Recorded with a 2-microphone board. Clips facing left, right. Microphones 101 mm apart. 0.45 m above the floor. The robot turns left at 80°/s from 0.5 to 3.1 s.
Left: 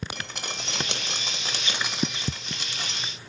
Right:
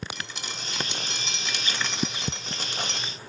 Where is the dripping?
120° left, 1.4 m; by 3.0 s 80° right, 1.4 m.